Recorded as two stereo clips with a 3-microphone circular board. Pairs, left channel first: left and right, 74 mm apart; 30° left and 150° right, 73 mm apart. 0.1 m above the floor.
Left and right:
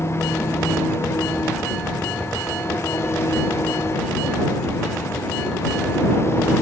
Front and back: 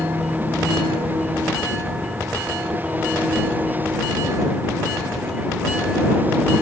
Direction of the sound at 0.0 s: 145° left.